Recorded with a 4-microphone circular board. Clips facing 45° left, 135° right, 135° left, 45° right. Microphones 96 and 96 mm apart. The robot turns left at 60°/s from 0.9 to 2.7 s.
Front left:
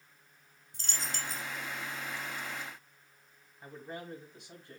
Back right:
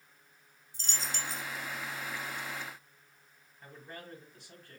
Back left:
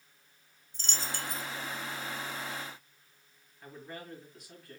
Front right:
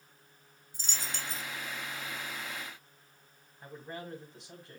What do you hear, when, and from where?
0.7 s a dropped coin: 35° left, 0.9 m; by 1.4 s straight ahead, 0.9 m
3.6 s a man speaking: 10° right, 1.7 m